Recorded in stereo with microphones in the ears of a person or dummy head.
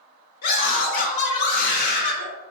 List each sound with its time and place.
0.4 s a scream: 55° left (ahead or behind), 1.7 m